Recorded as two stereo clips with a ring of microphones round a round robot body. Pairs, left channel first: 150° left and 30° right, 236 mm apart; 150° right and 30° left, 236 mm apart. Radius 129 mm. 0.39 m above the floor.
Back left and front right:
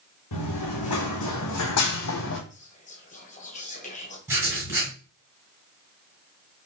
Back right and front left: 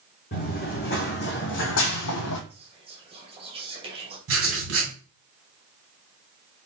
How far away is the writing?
About 2.5 m.